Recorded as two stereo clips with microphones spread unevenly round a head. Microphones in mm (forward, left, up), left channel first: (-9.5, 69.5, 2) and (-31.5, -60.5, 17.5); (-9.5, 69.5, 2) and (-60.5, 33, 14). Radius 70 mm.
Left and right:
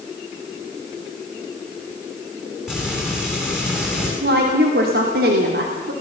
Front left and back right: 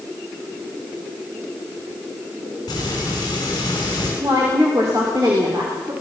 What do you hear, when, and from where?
2.7 s frying: 10° right, 8 m
4.2 s a woman speaking: 80° right, 3 m